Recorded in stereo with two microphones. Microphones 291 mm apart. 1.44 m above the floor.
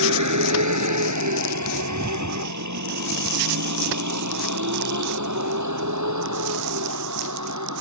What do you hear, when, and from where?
0.0 s a vehicle: 80° right; by 7.8 s 75° right (ahead or behind)